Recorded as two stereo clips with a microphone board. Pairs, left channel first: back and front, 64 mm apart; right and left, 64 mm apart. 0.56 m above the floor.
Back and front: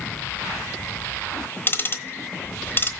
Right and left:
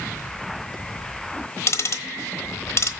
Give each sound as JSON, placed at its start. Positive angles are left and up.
{"t": 1.7, "sound": "ticking", "azimuth_deg": -130, "distance_m": 1.1}